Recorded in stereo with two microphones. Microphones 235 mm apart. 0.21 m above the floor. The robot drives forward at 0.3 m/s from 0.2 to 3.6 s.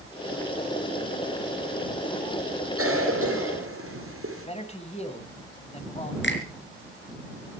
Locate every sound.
2.8 s a cough: 70° right (ahead or behind), 3.5 m
4.5 s a man speaking: 25° left (ahead or behind), 1.7 m
6.2 s a finger snap: 50° left (ahead or behind), 3 m